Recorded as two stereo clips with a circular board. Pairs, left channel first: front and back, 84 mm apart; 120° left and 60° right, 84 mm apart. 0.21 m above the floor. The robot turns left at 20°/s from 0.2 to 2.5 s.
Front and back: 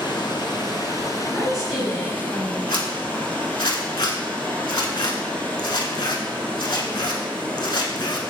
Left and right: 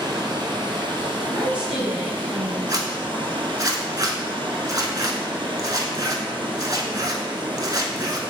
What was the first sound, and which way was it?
Running water, 30° right.